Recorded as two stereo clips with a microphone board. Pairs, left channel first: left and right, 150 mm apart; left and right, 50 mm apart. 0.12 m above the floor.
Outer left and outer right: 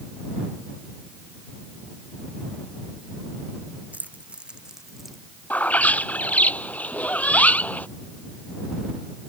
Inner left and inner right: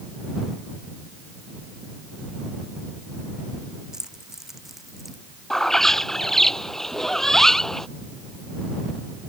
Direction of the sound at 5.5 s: 10° left (ahead or behind).